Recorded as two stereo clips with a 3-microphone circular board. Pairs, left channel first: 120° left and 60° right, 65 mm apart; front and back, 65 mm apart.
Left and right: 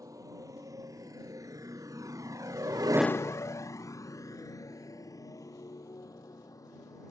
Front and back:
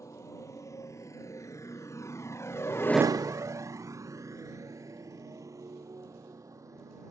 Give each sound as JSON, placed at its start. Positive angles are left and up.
{"t": 0.0, "sound": "a motorcycle", "azimuth_deg": -35}